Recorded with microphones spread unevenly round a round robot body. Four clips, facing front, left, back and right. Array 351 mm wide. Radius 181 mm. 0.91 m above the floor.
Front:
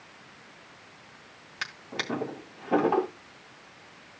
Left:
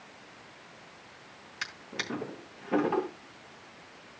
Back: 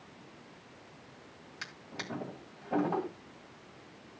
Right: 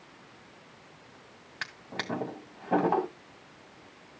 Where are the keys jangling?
I don't hear keys jangling.